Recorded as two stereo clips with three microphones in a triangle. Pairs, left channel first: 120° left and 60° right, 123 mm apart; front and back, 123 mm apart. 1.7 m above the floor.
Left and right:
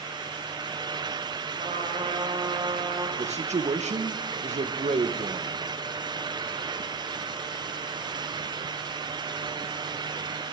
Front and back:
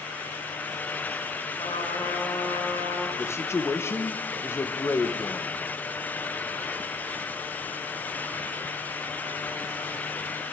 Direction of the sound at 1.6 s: 45° right.